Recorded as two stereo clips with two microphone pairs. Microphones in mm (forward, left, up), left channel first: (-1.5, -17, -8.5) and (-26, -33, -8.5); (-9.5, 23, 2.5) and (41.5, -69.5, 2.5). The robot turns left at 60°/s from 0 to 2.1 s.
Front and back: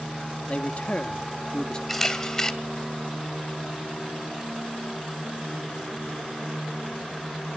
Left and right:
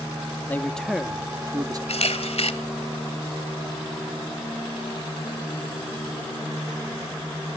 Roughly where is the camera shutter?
Behind left.